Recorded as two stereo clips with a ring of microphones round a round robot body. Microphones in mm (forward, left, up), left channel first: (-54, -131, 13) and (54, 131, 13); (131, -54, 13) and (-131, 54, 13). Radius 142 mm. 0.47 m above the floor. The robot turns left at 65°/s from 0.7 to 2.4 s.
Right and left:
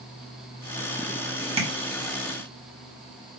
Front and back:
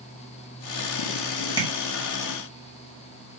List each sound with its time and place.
1.6 s tapping: 105° left, 1.4 m; by 1.7 s 95° left, 1.4 m